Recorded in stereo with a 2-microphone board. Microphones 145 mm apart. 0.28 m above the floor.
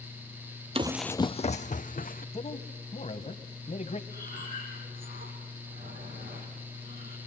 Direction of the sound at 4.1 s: 70° right (ahead or behind).